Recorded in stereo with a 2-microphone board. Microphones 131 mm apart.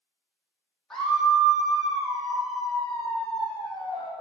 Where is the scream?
5° left (ahead or behind), 5.5 m.